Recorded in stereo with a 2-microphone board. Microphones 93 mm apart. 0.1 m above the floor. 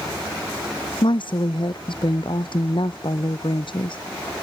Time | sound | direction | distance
1.0 | a woman speaking | 60° left (ahead or behind) | ?